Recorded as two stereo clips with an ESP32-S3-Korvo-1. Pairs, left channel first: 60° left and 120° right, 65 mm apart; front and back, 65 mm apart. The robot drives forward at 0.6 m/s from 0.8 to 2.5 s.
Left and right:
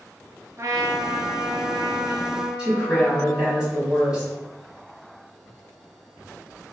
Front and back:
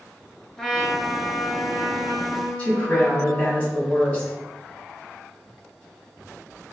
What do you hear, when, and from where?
0.6 s a trumpet: 80° right, 0.6 m; by 3.6 s 150° right, 1.1 m
2.6 s a woman speaking: 55° right, 1.6 m